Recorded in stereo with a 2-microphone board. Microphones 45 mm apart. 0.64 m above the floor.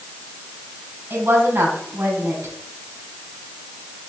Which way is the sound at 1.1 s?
60° right (ahead or behind).